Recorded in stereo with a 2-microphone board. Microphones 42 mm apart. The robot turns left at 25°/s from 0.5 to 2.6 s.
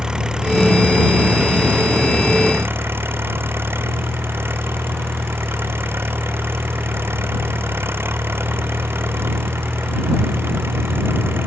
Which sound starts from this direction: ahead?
An engine running, at 0.0 s.